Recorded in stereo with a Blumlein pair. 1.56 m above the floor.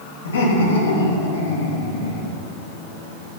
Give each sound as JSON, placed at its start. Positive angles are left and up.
{"t": 0.2, "sound": "laughter", "azimuth_deg": 65, "distance_m": 3.0}